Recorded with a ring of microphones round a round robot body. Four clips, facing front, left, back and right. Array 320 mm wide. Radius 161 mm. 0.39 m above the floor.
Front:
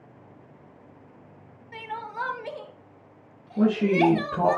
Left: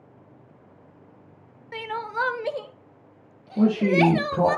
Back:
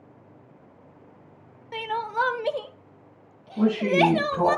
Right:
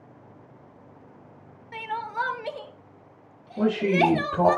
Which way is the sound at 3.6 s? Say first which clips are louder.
Left 2 dB, even; 70° left.